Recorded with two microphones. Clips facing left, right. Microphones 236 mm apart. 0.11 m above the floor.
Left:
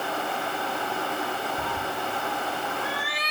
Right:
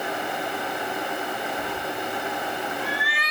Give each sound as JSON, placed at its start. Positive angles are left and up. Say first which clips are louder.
{"t": 1.6, "sound": "a cat meowing", "louder": "right 1 dB", "side_deg": 75, "distance_m": 3.0}